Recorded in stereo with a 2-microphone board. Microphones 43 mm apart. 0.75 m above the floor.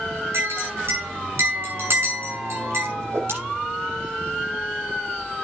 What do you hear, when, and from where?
0.3 s a clink: 65° right (ahead or behind), 7 m
3.0 s a whoosh: 70° right (ahead or behind), 6.5 m